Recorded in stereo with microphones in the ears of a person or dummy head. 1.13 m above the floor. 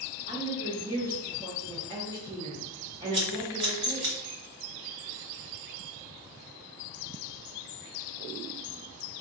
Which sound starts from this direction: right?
Scissors, at 3.1 s.